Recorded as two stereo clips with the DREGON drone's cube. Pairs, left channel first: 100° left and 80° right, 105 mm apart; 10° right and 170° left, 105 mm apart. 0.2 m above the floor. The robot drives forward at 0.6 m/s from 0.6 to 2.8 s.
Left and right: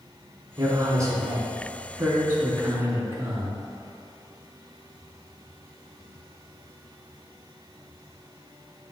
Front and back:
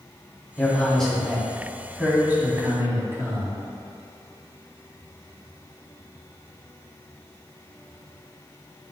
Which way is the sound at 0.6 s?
75° right.